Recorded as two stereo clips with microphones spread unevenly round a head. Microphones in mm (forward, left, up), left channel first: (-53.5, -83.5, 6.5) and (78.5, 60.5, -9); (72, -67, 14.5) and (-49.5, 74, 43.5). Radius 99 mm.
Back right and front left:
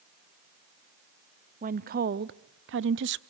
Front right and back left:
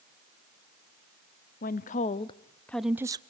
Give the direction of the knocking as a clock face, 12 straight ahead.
No knocking in this recording.